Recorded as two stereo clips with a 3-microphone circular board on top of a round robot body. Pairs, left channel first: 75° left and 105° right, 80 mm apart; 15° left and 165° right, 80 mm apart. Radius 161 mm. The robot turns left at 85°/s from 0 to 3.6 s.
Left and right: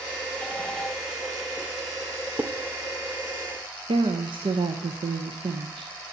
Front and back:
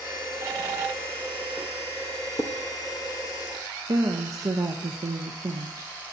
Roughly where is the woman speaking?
Behind right.